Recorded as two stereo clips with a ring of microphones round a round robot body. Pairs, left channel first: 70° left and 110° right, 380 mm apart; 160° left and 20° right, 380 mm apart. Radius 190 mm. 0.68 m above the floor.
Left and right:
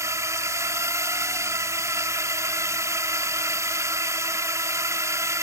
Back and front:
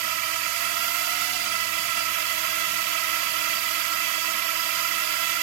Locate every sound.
0.0 s a drone: 30° right